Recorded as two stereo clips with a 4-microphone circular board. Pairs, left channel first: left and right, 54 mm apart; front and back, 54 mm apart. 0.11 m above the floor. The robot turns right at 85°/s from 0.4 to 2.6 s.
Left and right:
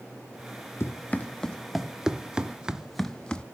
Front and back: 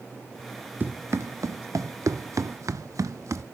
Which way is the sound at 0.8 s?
125° left.